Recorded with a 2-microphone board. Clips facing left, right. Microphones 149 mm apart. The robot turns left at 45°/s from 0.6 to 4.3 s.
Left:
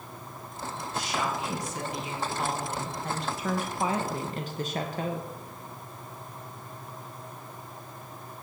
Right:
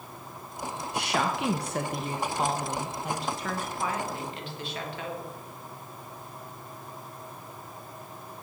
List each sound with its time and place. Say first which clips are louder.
0.9 s a woman speaking: right 3 dB; 75° right, 0.6 m; by 5.3 s 135° left, 0.6 m